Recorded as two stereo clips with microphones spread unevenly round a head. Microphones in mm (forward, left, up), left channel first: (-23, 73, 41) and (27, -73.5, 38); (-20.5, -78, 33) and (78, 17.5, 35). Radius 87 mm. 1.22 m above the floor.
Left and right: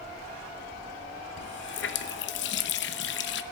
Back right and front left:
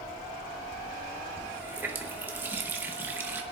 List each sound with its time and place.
1.4 s a running tap: 125° left, 0.9 m